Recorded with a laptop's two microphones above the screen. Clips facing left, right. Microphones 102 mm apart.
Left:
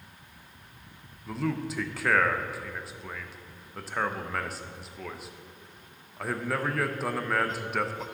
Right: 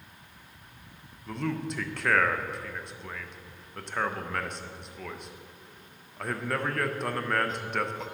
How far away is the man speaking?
About 0.6 m.